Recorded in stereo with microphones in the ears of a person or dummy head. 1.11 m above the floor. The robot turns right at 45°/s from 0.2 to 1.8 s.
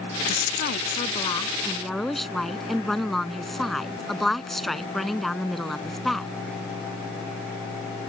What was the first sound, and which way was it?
A woman speaking, 110° left.